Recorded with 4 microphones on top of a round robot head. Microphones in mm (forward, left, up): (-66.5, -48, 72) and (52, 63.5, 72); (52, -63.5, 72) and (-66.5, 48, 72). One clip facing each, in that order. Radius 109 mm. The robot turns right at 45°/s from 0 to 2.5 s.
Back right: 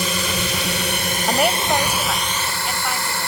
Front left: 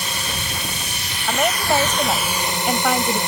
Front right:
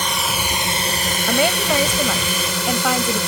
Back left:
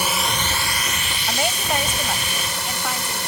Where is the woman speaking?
60° right; by 3.2 s 5° right.